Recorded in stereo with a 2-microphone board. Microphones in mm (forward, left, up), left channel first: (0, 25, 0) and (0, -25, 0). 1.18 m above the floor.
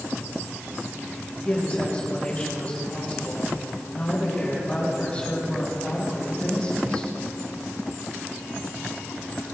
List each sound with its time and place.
1.4 s a woman speaking: 25° left (ahead or behind), 6 m